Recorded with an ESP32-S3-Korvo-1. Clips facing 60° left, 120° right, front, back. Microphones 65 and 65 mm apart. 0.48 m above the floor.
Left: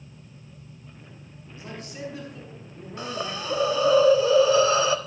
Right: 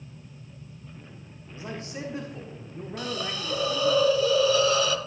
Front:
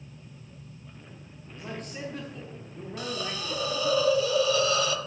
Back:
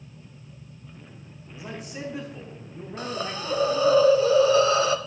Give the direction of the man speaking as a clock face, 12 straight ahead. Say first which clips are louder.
Right 1 dB, back 1 dB; 3 o'clock.